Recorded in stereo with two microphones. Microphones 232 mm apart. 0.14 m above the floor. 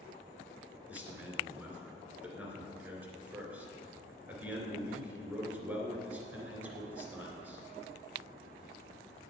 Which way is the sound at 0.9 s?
5° right (ahead or behind).